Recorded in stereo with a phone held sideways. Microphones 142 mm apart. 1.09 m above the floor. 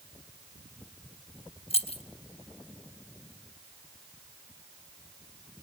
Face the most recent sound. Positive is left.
turn(degrees=50)  # may be behind; listen again after turning